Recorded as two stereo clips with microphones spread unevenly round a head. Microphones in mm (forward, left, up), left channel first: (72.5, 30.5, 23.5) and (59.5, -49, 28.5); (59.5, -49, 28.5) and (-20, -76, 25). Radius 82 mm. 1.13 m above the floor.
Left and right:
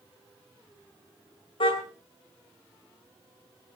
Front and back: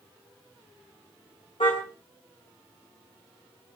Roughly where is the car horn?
Left.